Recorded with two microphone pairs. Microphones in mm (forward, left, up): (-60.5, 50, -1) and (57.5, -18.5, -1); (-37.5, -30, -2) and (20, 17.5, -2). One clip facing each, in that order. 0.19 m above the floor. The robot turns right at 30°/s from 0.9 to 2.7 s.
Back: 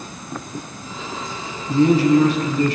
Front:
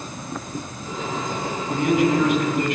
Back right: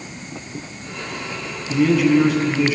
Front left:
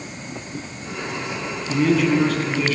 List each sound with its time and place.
1.7 s a man speaking: 125° left, 1.6 m; by 2.8 s 155° left, 1.6 m